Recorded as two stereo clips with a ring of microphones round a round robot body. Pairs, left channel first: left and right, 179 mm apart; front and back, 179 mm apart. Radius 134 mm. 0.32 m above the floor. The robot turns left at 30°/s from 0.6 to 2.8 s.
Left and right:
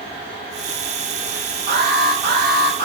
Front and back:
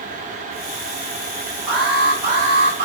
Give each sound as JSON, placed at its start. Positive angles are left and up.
{"t": 1.7, "sound": "an alarm", "azimuth_deg": -85, "distance_m": 4.0}